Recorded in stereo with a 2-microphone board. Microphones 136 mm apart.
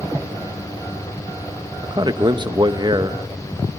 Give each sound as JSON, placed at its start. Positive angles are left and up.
{"t": 1.8, "sound": "a man speaking", "side_deg": -35, "distance_m": 0.9}